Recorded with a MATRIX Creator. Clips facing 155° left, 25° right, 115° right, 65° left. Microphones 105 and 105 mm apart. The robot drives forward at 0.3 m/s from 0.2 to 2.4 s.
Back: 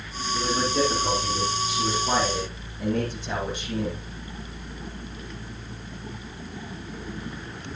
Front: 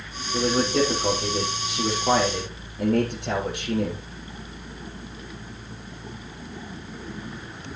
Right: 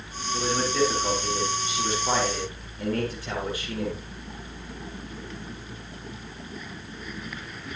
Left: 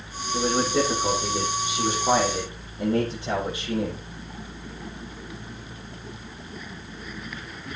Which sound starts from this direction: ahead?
A man speaking, at 0.3 s.